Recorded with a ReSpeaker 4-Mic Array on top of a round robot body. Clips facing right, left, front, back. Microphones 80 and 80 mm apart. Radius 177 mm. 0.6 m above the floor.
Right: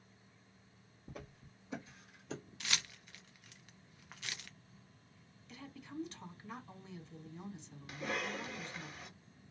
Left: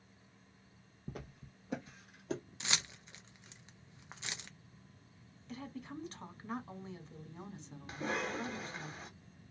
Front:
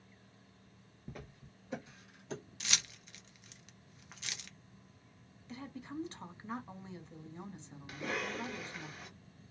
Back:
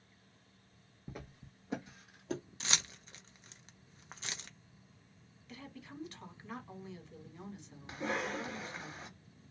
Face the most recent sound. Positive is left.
turn(degrees=130)